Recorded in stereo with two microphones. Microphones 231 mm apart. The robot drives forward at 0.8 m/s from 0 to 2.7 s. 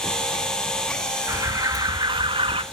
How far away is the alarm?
About 1.4 m.